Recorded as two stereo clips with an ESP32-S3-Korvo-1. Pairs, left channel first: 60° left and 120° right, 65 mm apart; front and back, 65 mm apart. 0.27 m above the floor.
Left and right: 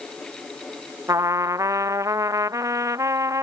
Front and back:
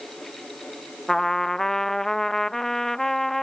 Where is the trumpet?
85° right.